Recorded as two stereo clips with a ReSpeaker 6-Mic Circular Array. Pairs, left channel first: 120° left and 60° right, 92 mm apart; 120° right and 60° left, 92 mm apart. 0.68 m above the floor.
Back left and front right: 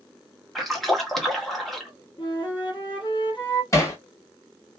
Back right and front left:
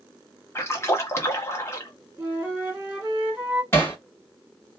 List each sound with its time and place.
0.6 s a splash: 150° right, 0.9 m
2.2 s a flute: 135° left, 1.9 m
3.7 s hammering: 175° left, 1.2 m